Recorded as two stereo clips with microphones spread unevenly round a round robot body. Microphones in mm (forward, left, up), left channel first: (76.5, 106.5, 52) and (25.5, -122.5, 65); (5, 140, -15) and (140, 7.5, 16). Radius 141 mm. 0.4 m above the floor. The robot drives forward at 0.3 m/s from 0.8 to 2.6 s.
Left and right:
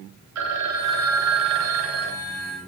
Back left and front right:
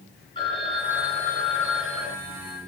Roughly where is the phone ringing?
Behind right.